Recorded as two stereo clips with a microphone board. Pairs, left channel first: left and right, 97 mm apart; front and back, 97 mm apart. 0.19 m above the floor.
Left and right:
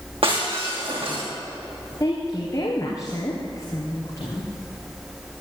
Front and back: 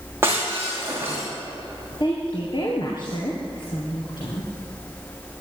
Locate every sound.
0.2 s breaking glass: 115° right, 8 m
2.0 s a woman speaking: 35° left, 3 m